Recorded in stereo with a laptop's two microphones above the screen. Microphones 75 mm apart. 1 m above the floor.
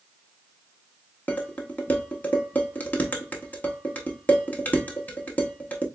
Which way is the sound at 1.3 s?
20° left (ahead or behind).